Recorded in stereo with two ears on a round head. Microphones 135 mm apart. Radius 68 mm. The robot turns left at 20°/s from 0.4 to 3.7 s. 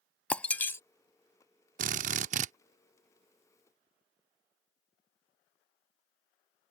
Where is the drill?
55° right (ahead or behind); by 2.5 s 50° right (ahead or behind).